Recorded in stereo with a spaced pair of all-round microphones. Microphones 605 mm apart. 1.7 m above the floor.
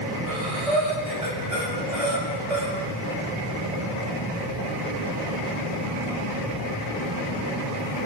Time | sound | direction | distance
0.3 | breathing | 70° right (ahead or behind) | 7.5 m